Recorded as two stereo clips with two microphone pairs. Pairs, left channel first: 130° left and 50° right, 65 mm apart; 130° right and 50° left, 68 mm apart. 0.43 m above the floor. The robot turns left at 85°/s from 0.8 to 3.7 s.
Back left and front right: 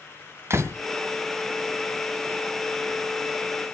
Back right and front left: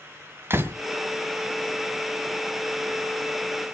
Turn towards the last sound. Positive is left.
turn(degrees=110)